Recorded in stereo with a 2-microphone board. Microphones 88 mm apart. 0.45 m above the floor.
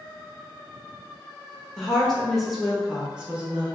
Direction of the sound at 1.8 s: 5° left (ahead or behind).